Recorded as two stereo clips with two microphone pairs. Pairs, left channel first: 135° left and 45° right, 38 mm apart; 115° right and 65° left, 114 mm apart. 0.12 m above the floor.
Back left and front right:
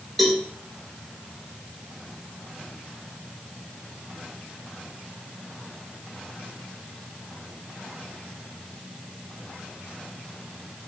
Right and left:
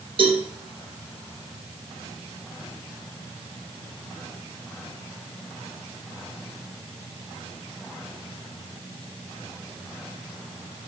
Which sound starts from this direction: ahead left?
A cowbell, at 0.2 s.